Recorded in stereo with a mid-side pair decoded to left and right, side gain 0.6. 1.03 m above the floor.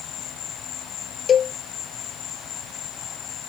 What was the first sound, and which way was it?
An insect, 55° left.